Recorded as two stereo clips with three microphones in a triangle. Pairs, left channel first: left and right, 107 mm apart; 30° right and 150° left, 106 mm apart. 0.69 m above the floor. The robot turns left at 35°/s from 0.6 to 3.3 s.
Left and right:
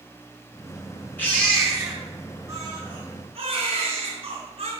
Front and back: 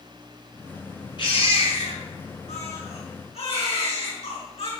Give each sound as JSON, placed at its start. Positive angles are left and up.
{"t": 1.2, "sound": "a baby crying", "azimuth_deg": 15, "distance_m": 5.5}